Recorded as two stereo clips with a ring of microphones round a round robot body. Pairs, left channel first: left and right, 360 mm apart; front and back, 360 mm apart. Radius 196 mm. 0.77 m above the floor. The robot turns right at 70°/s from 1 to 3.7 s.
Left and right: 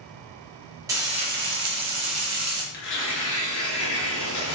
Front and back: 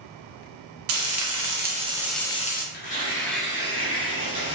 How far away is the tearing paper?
About 1.1 m.